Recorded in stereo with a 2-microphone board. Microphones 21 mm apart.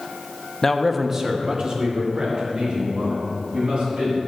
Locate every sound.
0.6 s a man speaking: 25° left (ahead or behind), 0.6 m; by 4.2 s 45° right (ahead or behind), 4 m